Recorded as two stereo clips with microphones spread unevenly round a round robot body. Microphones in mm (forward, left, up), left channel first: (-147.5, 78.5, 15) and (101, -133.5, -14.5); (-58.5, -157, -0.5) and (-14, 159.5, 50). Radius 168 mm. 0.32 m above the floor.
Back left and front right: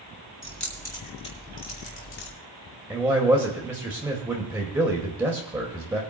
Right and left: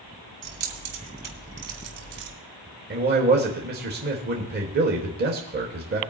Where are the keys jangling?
50° left, 2.5 m; by 2.3 s 85° left, 3 m.